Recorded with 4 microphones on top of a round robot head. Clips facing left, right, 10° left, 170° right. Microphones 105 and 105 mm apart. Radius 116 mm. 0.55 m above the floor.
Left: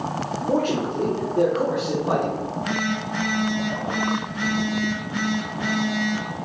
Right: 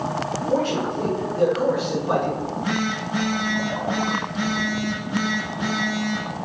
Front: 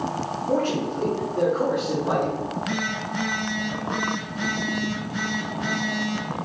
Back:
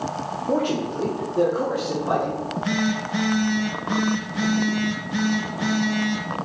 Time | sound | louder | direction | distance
0.5 | a man speaking | even, back 1 dB | 120° left | 1.0 m
2.4 | a phone buzzing | right 2 dB, back 3 dB | 165° right | 0.9 m